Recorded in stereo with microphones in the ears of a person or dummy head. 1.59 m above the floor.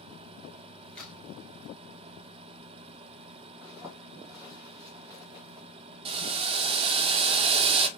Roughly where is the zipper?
Centre.